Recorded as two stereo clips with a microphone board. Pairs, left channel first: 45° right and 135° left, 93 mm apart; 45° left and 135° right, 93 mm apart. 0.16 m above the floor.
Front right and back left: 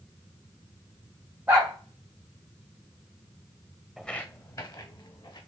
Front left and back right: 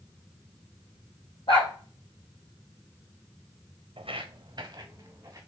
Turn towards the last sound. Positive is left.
turn(degrees=-75)